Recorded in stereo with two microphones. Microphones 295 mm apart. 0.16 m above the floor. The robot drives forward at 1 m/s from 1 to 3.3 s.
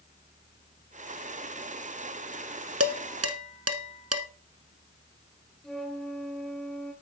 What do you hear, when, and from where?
2.8 s dishes clattering: 50° right (ahead or behind), 1.4 m; by 4.3 s 55° right (ahead or behind), 1.4 m
5.6 s a flute: centre (ahead or behind), 3.5 m